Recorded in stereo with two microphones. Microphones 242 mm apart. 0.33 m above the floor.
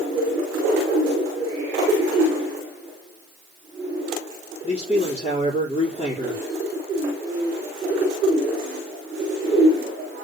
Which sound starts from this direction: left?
A man speaking, at 4.6 s.